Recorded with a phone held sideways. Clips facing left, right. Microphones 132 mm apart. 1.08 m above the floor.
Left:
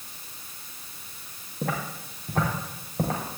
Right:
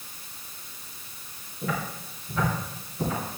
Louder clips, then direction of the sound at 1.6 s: Left 1 dB; 55° left (ahead or behind).